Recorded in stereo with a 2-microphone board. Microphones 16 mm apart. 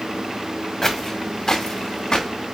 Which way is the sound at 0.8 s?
25° left (ahead or behind).